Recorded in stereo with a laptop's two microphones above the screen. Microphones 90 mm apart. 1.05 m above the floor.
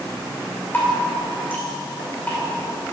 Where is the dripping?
20° left (ahead or behind), 2.5 m.